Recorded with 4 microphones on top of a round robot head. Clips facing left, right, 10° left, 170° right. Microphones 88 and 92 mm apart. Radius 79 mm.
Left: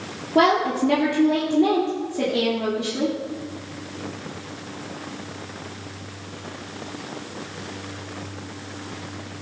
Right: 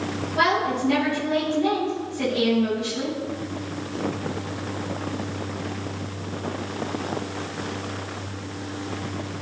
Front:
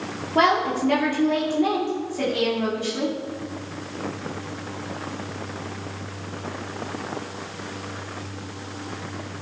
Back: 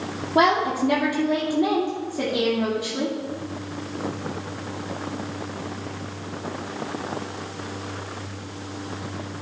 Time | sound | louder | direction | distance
0.3 | a woman speaking | left 4 dB, back 1 dB | 115° left | 2 m